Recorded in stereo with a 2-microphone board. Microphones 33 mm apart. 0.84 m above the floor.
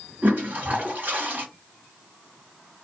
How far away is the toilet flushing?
About 1.8 m.